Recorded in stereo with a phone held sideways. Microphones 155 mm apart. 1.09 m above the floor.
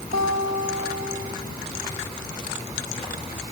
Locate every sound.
0.1 s a guitar: 75° right (ahead or behind), 2.5 m